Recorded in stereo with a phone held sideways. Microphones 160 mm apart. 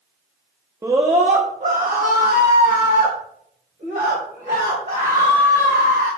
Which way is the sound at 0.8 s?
20° right (ahead or behind).